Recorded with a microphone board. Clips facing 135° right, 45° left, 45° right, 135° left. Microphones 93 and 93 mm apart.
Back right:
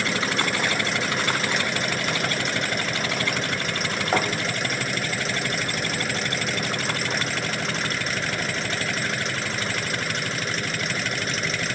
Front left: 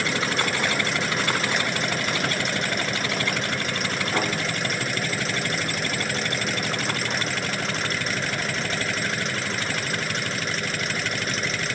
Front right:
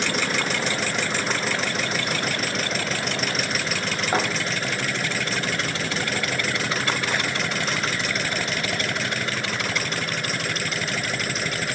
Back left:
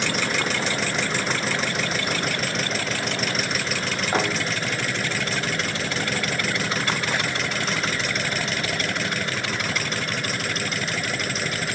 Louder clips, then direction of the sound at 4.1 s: Back right 3 dB, even; 110° right.